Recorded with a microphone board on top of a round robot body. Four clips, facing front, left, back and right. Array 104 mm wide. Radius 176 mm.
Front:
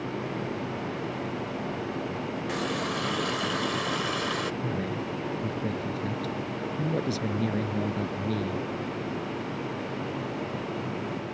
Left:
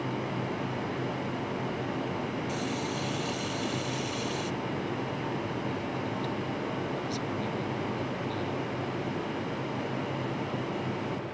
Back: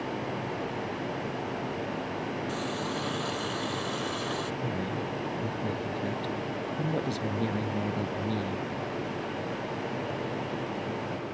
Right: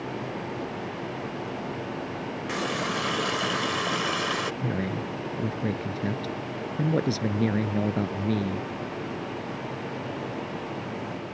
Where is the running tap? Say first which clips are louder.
Right 3 dB, front 2 dB; 65° right.